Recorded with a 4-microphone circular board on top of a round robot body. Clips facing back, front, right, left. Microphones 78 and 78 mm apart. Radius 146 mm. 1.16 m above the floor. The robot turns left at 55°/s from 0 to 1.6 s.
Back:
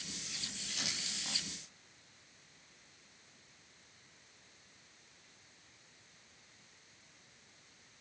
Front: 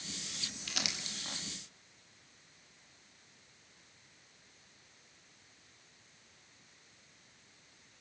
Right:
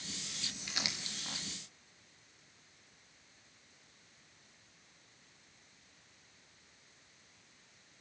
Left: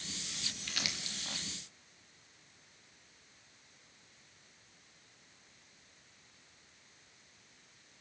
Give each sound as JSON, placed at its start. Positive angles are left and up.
{"t": 0.7, "sound": "crumpling", "azimuth_deg": -15, "distance_m": 0.7}